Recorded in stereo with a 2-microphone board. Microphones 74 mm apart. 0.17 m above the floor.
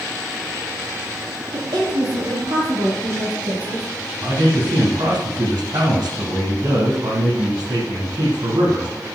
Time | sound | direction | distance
1.5 | a woman speaking | 65° right (ahead or behind) | 5.5 m
4.2 | a man speaking | 65° right (ahead or behind) | 6 m